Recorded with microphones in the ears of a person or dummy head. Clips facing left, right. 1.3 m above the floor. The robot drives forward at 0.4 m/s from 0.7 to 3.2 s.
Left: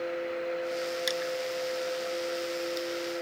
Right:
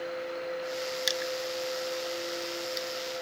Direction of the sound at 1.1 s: Centre (ahead or behind).